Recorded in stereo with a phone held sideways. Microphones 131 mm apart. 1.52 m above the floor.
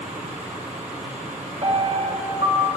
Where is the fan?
60° right (ahead or behind), 1.4 m.